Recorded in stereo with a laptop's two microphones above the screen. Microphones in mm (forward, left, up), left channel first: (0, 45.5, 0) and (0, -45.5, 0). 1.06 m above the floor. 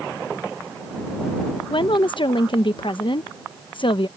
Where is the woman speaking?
60° left (ahead or behind).